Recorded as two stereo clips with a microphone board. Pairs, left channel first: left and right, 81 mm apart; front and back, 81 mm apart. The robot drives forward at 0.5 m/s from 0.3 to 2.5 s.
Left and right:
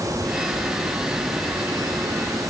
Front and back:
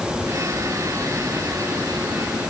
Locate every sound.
Only background noise.